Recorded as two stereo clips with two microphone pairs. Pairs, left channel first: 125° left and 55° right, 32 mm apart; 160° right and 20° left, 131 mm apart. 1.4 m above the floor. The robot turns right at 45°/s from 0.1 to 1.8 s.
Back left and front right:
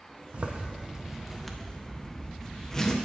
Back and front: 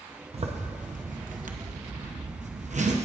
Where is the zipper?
20° right, 0.7 m; by 3.0 s 45° left, 0.7 m.